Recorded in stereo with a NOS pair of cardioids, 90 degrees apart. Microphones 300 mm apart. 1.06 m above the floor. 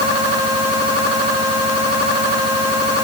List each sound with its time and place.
Only background noise.